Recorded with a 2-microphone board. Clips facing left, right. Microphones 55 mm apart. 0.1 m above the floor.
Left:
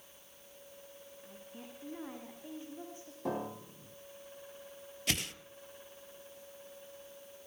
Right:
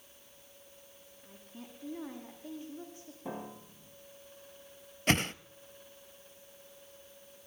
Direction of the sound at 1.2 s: 20° left (ahead or behind).